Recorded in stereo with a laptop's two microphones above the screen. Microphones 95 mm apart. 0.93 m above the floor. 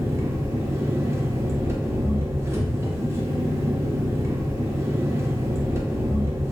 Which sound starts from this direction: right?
An engine running, at 0.0 s.